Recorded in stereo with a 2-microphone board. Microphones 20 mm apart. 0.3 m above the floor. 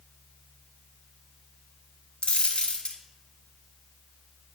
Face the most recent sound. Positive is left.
turn(degrees=70)  # may be behind; listen again after turning